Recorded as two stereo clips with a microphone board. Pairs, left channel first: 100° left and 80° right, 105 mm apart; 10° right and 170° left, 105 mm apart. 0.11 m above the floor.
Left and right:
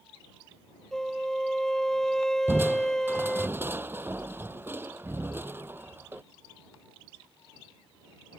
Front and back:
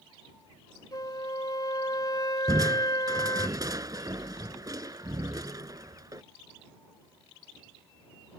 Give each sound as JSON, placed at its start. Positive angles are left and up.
{"t": 0.9, "sound": "a flute", "azimuth_deg": 20}
{"t": 2.5, "sound": "crushing", "azimuth_deg": -140}